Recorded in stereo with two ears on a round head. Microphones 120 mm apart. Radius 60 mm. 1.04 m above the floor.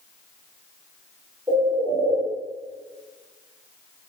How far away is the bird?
About 3 m.